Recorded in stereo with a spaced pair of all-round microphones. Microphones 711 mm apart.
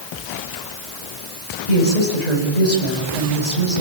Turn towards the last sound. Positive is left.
turn(degrees=70)  # may be behind; listen again after turning